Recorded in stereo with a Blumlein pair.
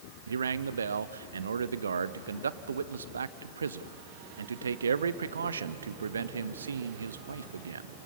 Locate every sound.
0.3 s a man speaking: 70° right, 0.7 m